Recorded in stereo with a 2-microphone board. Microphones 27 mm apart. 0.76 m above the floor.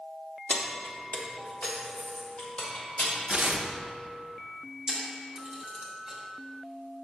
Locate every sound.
0.5 s keys jangling: 45° left (ahead or behind), 0.7 m; by 3.1 s 55° left (ahead or behind), 2.5 m
3.3 s tearing paper: 65° right (ahead or behind), 0.6 m
4.9 s a camera shutter: 25° right (ahead or behind), 2 m